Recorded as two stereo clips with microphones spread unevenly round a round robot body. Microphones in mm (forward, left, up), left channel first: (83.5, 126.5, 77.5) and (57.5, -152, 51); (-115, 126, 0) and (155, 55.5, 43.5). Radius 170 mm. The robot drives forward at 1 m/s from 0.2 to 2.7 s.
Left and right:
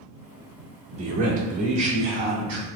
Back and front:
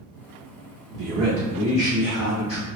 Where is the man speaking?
55° right, 0.8 m; by 2.7 s 165° right, 1.6 m.